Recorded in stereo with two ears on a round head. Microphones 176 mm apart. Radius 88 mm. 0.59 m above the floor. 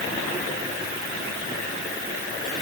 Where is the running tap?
No running tap in this recording.